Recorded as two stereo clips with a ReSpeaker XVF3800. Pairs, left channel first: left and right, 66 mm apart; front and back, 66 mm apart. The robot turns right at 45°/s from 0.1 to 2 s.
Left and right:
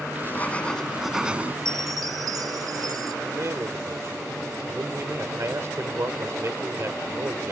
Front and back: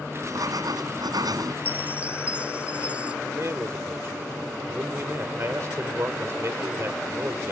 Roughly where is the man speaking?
Behind right.